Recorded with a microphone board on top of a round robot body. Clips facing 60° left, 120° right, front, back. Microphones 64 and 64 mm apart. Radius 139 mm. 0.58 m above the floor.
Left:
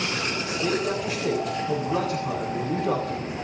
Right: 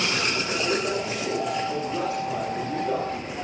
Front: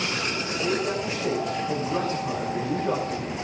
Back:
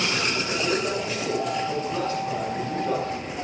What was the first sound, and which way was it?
A man speaking, 75° left.